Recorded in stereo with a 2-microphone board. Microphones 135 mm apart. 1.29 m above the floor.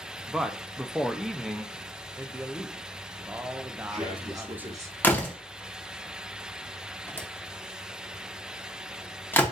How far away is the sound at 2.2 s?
About 0.5 m.